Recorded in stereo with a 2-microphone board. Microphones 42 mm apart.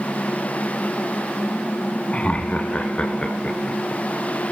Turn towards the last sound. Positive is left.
turn(degrees=20)  # may be behind; listen again after turning